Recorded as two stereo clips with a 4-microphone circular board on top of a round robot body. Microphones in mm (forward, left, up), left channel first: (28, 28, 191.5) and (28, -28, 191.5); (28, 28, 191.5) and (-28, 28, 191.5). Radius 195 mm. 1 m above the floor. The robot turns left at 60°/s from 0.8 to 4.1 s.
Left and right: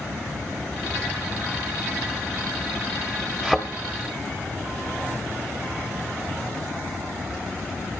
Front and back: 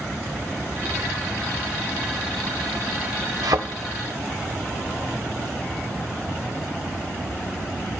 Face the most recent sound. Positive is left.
turn(degrees=140)